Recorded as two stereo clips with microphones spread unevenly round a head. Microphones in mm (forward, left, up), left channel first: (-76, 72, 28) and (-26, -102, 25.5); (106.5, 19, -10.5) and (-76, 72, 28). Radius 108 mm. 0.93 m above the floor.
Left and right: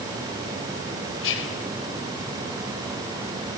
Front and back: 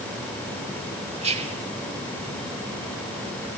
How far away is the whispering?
About 4 m.